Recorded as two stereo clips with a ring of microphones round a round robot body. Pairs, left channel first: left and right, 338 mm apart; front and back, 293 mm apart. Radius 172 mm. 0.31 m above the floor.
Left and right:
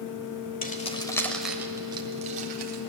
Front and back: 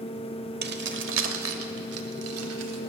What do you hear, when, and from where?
0.6 s keys jangling: 140° left, 1.1 m; by 2.8 s 150° right, 1.6 m